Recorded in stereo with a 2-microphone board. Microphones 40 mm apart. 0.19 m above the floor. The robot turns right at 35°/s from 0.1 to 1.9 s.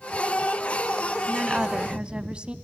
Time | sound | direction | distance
1.3 | a woman speaking | 20° right (ahead or behind) | 1.1 m